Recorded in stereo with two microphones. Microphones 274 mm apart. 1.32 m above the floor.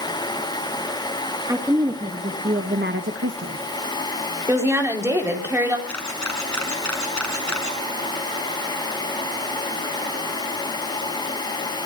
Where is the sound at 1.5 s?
10° right (ahead or behind), 1.9 m; by 3.6 s 70° right (ahead or behind), 1.0 m.